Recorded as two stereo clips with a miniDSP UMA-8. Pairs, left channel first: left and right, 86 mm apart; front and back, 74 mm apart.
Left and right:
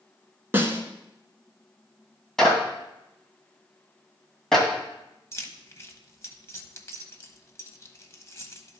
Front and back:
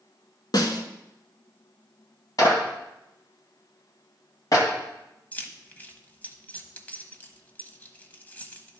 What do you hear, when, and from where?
0.5 s a snare drum: 25° right, 0.9 m
2.4 s a clap: 10° left, 2.0 m
5.3 s keys jangling: 55° left, 0.8 m